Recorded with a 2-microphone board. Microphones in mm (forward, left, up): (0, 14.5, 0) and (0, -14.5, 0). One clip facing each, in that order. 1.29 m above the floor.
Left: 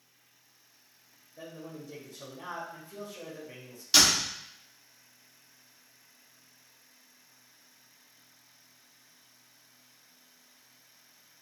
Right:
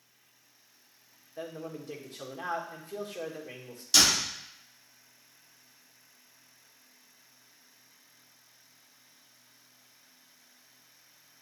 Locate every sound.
1.4 s a man speaking: 75° right (ahead or behind), 1.9 m
3.9 s a door slam: 25° left (ahead or behind), 2.5 m